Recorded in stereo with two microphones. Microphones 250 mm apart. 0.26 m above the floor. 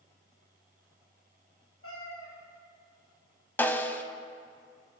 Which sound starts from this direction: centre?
A snare drum, at 3.6 s.